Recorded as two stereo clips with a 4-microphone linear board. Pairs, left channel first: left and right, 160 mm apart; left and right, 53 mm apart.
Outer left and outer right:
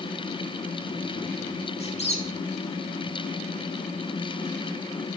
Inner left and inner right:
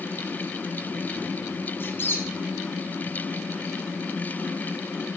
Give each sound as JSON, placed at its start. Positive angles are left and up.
{"t": 1.8, "sound": "a squeak", "side_deg": 40, "distance_m": 2.0}